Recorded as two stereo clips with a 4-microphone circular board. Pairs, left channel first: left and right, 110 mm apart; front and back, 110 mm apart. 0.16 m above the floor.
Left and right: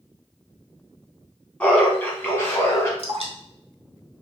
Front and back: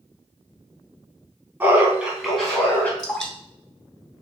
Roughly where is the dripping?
Right.